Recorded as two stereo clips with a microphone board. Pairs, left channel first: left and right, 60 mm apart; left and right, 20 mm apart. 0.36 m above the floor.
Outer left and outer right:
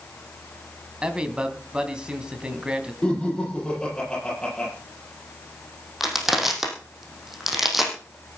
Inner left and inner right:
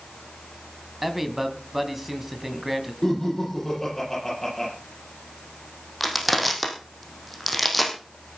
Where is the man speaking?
15° right (ahead or behind), 2.5 m.